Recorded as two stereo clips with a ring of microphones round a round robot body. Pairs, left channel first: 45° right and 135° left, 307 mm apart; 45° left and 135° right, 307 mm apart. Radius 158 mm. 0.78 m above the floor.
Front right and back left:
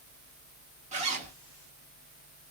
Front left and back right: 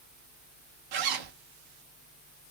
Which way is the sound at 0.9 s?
155° right.